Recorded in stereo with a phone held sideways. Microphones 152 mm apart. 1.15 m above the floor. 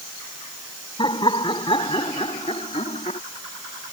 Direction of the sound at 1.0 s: 35° left (ahead or behind).